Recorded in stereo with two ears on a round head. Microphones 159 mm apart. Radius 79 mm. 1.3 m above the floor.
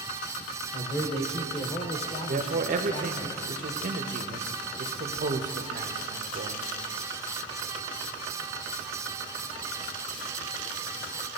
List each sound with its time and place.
0.7 s a man speaking: 35° left (ahead or behind), 1.0 m
2.3 s a man speaking: 45° right (ahead or behind), 0.7 m